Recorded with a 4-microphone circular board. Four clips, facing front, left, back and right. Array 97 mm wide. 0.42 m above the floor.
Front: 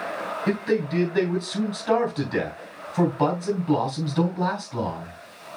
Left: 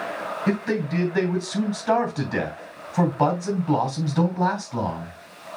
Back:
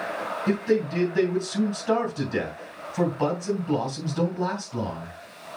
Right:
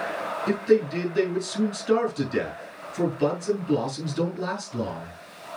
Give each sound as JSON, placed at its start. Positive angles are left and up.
{"t": 0.5, "sound": "a man speaking", "azimuth_deg": 65, "distance_m": 3.0}